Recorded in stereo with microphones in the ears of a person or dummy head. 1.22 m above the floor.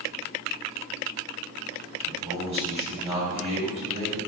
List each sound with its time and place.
2.0 s a man speaking: 25° right (ahead or behind), 1.8 m